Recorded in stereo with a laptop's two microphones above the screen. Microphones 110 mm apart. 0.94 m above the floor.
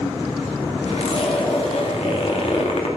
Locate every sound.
0.9 s a zipper: 70° left (ahead or behind), 2 m